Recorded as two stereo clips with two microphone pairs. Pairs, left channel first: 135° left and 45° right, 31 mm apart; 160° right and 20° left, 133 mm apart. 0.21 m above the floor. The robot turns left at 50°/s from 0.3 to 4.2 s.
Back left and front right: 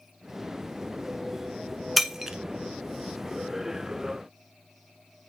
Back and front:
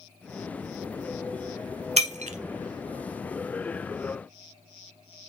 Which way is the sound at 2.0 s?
45° left.